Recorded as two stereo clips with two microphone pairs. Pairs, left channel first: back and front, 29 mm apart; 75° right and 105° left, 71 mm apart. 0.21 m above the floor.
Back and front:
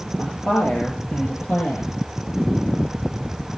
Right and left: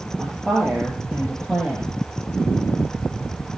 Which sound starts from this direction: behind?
A woman speaking, at 0.2 s.